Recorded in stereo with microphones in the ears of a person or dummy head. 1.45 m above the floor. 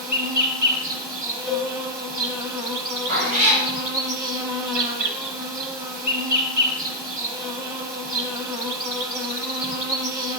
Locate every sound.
0.0 s an insect: 10° right (ahead or behind), 0.8 m
1.5 s a cowbell: centre (ahead or behind), 0.9 m
3.1 s a cat meowing: 40° right (ahead or behind), 3 m